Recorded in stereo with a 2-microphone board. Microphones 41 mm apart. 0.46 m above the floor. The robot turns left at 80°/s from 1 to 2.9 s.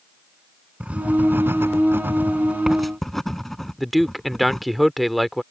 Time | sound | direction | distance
0.8 | writing | 30° right (ahead or behind) | ?
3.8 | a man speaking | centre (ahead or behind) | ?